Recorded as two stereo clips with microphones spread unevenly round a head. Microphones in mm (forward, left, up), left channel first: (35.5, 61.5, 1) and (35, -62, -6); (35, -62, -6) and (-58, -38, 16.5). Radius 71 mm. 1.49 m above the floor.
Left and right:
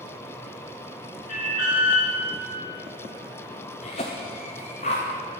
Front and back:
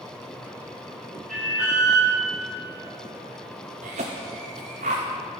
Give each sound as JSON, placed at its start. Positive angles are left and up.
{"t": 1.3, "sound": "an alarm", "azimuth_deg": 80, "distance_m": 4.5}
{"t": 3.8, "sound": "a cough", "azimuth_deg": 135, "distance_m": 0.7}